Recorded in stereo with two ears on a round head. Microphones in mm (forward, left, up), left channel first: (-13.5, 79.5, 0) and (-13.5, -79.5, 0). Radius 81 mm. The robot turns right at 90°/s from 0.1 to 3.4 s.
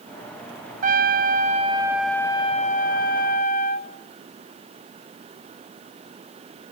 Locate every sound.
0.8 s a trumpet: 110° right, 0.8 m; by 3.9 s 120° left, 0.8 m